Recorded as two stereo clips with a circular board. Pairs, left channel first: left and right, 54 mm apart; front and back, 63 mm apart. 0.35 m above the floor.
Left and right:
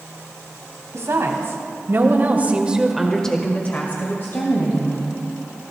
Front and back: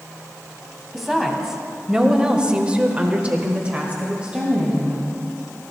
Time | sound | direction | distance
0.9 | a woman speaking | 95° right | 3 m